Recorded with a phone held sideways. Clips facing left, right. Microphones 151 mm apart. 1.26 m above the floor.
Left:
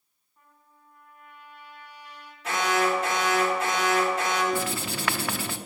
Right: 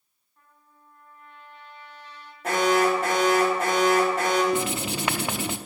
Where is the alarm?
50° right (ahead or behind), 4 m.